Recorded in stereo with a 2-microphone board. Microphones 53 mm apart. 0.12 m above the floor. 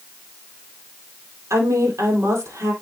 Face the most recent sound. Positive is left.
turn(degrees=-75)  # may be behind; listen again after turning